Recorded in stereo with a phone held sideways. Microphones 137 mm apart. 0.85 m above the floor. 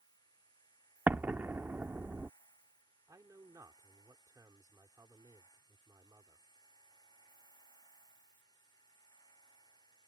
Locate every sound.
0.0 s a machine running: 30° left (ahead or behind)
1.1 s an explosion: 15° right (ahead or behind)
3.1 s a man speaking: 25° right (ahead or behind)